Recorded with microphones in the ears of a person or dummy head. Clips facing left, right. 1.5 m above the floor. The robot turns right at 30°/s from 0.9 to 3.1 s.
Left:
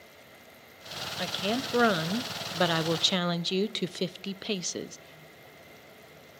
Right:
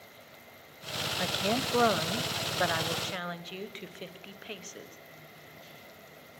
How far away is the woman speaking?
About 0.9 m.